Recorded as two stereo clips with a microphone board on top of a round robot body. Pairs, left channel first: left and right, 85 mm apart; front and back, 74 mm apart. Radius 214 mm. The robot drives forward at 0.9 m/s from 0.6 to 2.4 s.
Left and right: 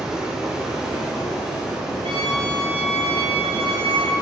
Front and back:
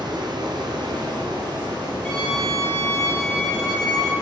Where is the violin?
80° right, 4 m; by 4.1 s 85° right, 4 m.